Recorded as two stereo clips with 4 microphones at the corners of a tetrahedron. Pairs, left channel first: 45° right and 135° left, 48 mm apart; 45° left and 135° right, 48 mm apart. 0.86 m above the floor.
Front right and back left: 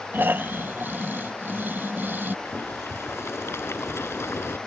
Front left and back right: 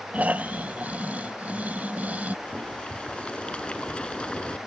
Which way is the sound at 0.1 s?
170° left.